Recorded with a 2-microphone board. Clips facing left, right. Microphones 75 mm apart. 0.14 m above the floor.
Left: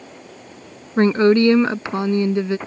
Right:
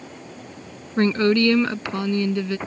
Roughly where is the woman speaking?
Left.